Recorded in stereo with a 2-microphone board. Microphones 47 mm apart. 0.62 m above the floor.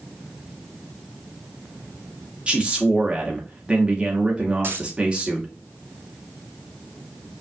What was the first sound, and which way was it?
A man speaking, 20° right (ahead or behind).